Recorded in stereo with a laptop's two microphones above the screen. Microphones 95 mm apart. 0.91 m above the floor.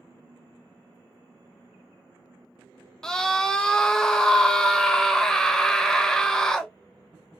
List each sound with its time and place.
3.0 s a scream: 5° left (ahead or behind), 0.7 m